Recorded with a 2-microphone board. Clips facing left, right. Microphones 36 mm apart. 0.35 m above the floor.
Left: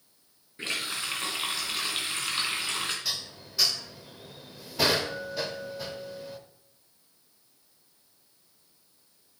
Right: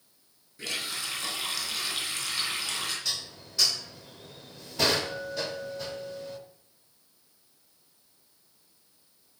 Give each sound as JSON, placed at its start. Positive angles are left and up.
{"t": 0.6, "sound": "a running tap", "side_deg": 40, "distance_m": 2.5}
{"t": 3.0, "sound": "dishes clattering", "side_deg": 5, "distance_m": 0.7}